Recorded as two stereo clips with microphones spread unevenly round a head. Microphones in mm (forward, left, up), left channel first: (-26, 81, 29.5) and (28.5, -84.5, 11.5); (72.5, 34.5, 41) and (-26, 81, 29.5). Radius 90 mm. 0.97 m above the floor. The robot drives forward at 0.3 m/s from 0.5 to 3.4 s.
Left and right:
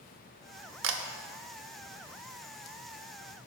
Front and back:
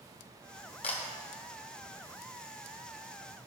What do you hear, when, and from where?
0.8 s a camera shutter: 70° right, 0.9 m; by 1.0 s 75° right, 0.9 m